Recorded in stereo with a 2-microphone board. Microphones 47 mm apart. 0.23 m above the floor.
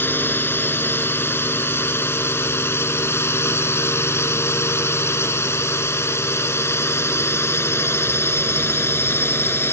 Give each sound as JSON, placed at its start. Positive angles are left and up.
{"t": 0.0, "sound": "a drone", "side_deg": 45}